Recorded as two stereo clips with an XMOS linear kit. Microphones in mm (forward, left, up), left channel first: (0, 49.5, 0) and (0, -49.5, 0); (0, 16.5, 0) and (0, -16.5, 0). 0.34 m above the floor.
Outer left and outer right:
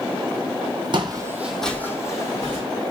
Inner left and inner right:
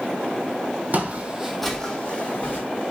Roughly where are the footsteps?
Right.